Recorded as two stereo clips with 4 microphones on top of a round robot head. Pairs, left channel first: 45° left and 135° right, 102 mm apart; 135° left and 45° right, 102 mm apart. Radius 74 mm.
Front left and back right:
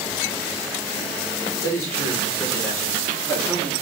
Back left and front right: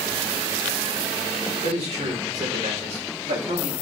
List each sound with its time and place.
1.6 s a man speaking: 20° right, 4 m; by 3.7 s 35° right, 2 m